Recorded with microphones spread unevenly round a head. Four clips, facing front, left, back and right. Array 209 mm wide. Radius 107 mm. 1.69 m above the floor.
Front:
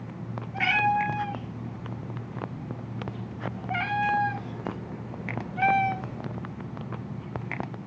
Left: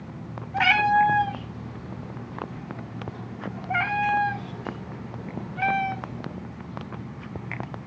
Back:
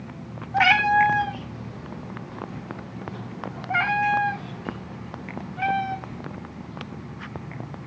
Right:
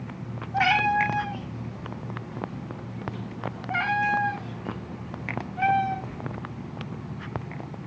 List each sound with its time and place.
0.5 s a cat meowing: 175° right, 2.5 m; by 6.4 s 10° left, 1.4 m